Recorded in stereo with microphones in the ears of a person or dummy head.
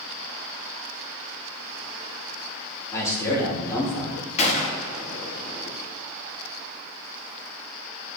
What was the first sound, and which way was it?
A man speaking, 10° left (ahead or behind).